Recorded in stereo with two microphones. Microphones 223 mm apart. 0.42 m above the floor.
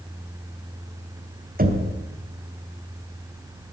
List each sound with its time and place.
1.6 s knocking: 40° right (ahead or behind), 1.7 m